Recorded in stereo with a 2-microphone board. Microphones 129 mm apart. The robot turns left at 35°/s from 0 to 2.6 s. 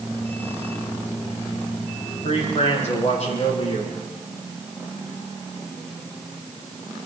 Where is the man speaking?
50° left (ahead or behind), 8.5 m; by 4.0 s 60° left (ahead or behind), 8.5 m.